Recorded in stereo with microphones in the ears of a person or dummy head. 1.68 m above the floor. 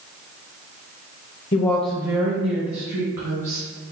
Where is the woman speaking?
30° left (ahead or behind), 0.7 m; by 3.6 s 70° right (ahead or behind), 1.7 m.